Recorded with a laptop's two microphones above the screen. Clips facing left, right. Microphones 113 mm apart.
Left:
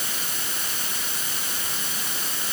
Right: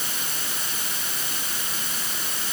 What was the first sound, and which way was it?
Only background noise.